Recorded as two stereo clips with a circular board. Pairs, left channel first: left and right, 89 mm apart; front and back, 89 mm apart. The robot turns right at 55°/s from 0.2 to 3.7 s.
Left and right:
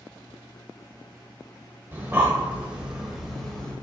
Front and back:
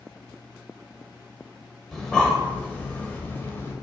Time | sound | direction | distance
1.9 | breathing | 75° right | 1.3 m